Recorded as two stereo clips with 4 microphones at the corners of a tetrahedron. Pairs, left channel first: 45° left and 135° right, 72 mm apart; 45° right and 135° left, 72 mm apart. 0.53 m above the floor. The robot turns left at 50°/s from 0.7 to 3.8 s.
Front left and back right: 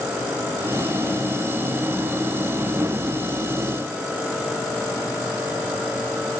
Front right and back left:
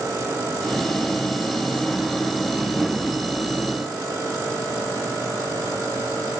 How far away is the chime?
No chime in this recording.